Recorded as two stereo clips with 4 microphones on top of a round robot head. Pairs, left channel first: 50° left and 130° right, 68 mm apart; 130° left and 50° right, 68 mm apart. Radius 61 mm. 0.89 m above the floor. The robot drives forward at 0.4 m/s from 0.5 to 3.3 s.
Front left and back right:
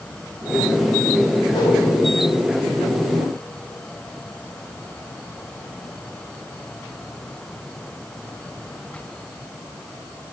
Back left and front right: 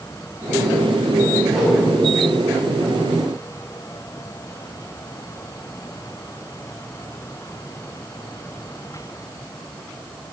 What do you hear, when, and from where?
1.5 s a whoosh: 40° left, 3.5 m; by 1.8 s 45° left, 3.5 m